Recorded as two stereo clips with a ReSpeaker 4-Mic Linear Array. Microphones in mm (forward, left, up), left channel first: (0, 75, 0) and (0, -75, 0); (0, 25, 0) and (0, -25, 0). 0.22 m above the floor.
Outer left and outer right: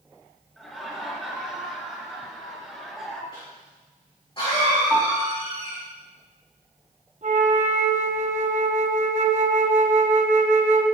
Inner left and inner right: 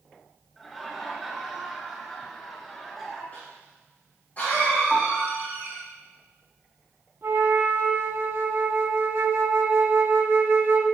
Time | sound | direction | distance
0.6 | laughter | 5° left (ahead or behind) | 4 m
3.3 | a cough | 35° left (ahead or behind) | 3.5 m
4.9 | a piano | 10° right (ahead or behind) | 2.5 m
7.2 | a flute | 55° right (ahead or behind) | 1.6 m